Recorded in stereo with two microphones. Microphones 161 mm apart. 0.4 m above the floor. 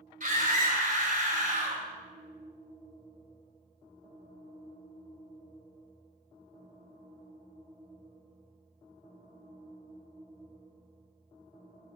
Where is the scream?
55° right (ahead or behind), 1.9 m.